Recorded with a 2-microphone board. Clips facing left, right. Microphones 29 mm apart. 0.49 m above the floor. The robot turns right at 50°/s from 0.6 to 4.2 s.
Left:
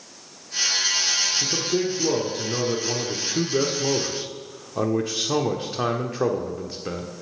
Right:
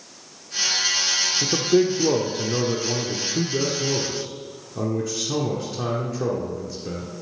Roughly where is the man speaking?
Ahead right.